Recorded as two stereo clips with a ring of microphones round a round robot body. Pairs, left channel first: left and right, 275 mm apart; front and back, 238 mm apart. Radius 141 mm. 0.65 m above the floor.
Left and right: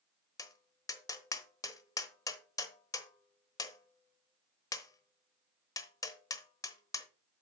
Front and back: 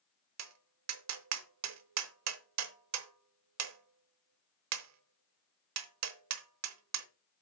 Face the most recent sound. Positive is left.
turn(degrees=170)